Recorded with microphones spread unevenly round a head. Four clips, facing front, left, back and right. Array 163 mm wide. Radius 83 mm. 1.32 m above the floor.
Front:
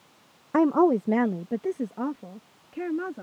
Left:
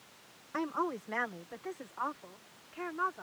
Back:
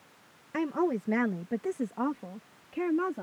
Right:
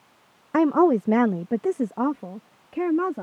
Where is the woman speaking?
50° right; by 3.2 s 95° right.